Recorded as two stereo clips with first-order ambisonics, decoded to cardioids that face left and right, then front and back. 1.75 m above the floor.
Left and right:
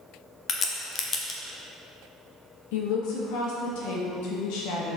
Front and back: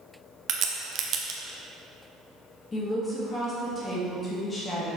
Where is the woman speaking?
75° left, 1.6 m.